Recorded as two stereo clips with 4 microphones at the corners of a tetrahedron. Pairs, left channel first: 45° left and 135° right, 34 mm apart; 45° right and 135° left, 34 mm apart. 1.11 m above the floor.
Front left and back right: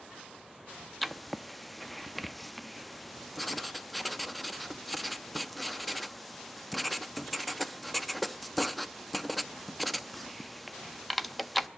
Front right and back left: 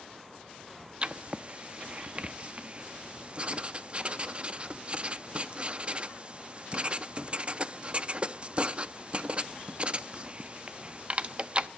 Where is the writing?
130° left, 0.5 m.